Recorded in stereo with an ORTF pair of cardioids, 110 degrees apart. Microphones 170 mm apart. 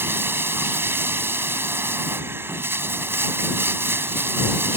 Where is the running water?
15° right.